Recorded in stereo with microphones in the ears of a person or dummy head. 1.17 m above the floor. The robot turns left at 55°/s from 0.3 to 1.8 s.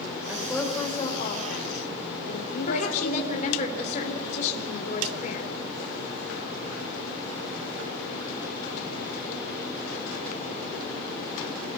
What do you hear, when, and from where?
0.3 s a woman speaking: 165° right, 4 m; by 3.5 s 110° left, 4 m
2.7 s a woman speaking: 50° left (ahead or behind), 3.5 m